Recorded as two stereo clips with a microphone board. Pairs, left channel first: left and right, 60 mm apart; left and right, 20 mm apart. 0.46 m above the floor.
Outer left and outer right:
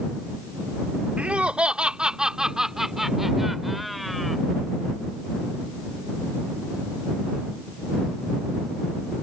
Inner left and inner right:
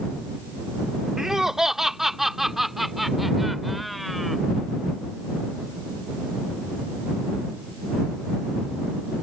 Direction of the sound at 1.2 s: 20° right (ahead or behind).